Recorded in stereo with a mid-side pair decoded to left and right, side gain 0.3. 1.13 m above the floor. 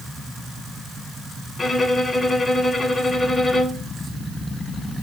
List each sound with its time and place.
1.6 s a violin: 55° left, 2.5 m